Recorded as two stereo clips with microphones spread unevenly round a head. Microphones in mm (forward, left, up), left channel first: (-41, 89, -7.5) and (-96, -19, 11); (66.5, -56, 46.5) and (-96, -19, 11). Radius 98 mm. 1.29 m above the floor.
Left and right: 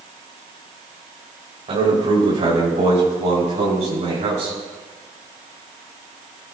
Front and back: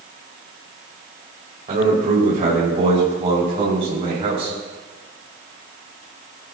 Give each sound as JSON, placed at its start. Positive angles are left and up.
{"t": 1.7, "sound": "a man speaking", "azimuth_deg": -145, "distance_m": 5.0}